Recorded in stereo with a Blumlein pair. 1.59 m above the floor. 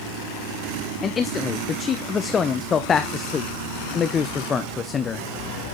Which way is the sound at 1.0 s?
25° left.